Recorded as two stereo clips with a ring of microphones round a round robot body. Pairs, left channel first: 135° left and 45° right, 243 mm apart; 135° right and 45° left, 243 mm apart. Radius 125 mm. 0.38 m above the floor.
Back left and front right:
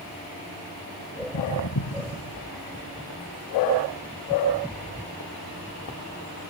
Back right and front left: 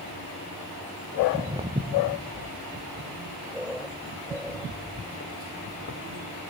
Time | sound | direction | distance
1.2 | footsteps | 105° left | 2 m